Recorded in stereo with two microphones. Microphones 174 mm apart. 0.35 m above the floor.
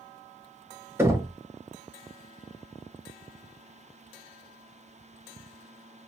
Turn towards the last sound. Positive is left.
turn(degrees=-15)  # may be behind; listen again after turning